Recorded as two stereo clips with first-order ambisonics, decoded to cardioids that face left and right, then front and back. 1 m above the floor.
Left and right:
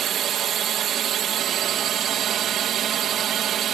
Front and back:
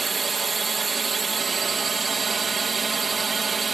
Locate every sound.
0.0 s a drone: 115° right